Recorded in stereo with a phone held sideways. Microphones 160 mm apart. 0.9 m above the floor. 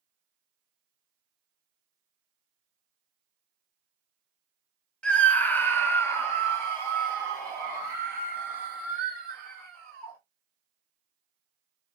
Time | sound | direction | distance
5.0 | a scream | 5° left (ahead or behind) | 0.9 m